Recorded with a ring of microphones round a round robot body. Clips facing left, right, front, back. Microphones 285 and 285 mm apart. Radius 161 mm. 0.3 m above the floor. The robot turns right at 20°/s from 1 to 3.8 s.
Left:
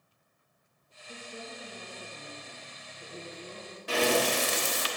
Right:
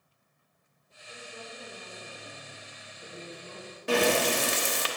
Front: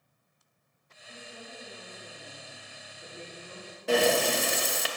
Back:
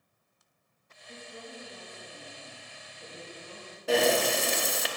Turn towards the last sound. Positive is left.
turn(degrees=-90)